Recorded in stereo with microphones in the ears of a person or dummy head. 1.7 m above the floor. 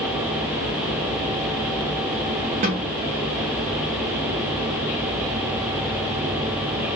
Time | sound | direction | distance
2.6 | a snare drum | 30° right (ahead or behind) | 1.4 m